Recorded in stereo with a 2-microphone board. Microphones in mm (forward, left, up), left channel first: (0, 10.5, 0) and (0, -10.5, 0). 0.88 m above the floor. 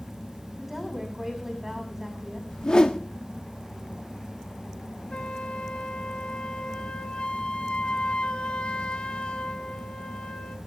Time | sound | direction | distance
0.6 | a woman speaking | 5° right (ahead or behind) | 6 m
2.5 | a whoosh | 40° left (ahead or behind) | 1.4 m
5.1 | a flute | 55° left (ahead or behind) | 1.1 m